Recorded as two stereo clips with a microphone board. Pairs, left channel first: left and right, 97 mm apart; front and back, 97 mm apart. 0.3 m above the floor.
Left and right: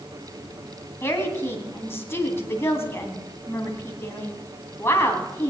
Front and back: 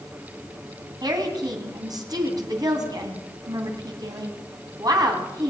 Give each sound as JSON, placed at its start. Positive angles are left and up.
{"t": 1.0, "sound": "a woman speaking", "azimuth_deg": 150, "distance_m": 2.5}